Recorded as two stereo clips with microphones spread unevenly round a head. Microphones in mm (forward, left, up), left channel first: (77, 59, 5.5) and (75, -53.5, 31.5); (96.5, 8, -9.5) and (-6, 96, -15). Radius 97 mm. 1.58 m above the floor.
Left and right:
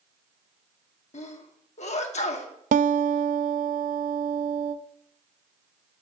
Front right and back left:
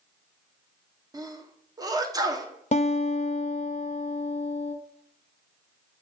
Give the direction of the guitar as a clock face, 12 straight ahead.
3 o'clock.